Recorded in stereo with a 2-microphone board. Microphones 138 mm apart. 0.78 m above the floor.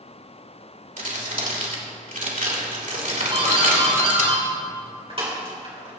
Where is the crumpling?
75° right (ahead or behind), 3 m.